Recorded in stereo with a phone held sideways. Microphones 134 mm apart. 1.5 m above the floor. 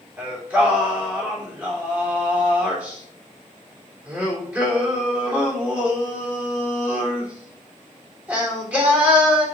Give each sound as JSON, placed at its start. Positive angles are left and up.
{"t": 0.2, "sound": "singing", "side_deg": -10, "distance_m": 3.0}